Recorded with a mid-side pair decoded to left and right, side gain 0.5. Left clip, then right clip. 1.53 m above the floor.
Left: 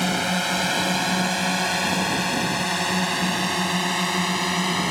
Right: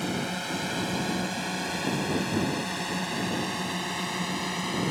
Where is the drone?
55° left; by 4.9 s 50° left.